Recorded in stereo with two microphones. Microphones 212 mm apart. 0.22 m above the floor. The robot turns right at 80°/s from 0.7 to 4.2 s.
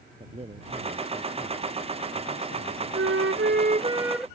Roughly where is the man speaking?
Ahead right.